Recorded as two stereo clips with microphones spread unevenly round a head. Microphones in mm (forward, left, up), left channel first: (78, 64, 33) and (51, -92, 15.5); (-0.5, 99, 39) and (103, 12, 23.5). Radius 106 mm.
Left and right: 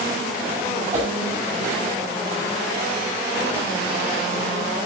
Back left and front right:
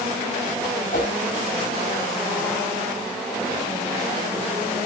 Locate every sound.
0.9 s a whoosh: 170° right, 6 m